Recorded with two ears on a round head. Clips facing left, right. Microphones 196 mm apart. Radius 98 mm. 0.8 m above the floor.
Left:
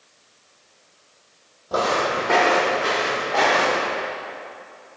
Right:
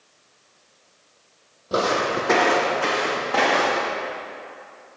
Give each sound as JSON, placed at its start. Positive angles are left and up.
{"t": 1.7, "sound": "footsteps", "side_deg": -30, "distance_m": 1.6}